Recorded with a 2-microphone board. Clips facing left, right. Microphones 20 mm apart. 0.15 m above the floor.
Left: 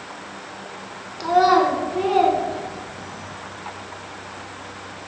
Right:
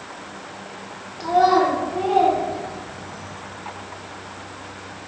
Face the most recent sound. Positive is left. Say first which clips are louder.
# left 1 dB
turn(degrees=40)  # may be behind; listen again after turning